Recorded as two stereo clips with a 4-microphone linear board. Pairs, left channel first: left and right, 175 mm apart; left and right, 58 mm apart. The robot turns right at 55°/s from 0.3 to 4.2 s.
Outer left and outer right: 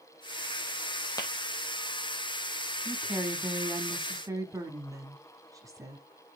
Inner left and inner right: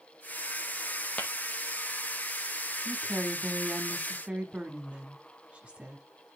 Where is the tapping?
20° left (ahead or behind), 1.9 m; by 1.3 s 25° left (ahead or behind), 1.9 m.